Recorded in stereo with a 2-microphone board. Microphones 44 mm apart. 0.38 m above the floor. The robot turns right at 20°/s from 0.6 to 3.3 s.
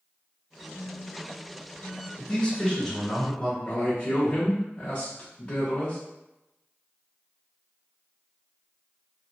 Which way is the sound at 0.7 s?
30° right (ahead or behind).